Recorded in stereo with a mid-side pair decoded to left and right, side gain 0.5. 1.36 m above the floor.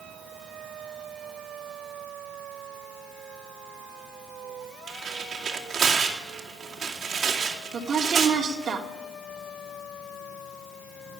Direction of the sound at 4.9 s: 45° right.